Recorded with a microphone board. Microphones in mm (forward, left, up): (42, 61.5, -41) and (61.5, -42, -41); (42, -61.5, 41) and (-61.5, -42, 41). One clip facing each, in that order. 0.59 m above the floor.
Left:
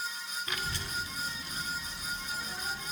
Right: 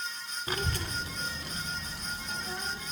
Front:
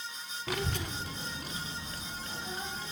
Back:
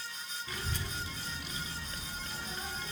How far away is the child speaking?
About 0.6 m.